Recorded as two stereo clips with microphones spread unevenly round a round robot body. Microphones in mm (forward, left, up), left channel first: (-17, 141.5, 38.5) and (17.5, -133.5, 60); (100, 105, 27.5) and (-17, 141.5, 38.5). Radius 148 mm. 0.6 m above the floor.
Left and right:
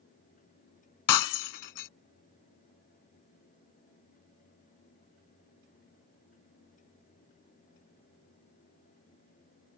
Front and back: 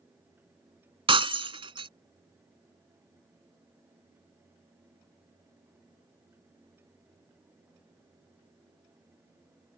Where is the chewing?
I don't hear chewing.